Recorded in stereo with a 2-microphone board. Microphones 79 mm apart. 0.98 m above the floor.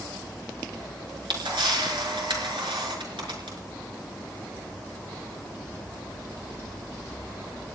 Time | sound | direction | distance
1.0 | a camera shutter | 85° right | 5.5 m